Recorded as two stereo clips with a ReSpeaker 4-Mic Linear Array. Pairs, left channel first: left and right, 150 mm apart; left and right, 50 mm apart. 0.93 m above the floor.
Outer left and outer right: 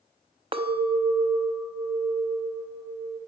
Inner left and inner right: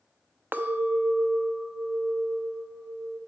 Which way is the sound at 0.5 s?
35° right (ahead or behind).